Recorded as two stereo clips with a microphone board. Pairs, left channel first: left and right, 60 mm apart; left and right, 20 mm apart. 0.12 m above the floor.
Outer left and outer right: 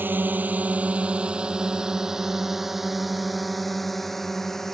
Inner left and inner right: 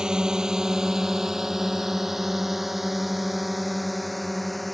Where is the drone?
35° right (ahead or behind); by 4.8 s 5° left (ahead or behind).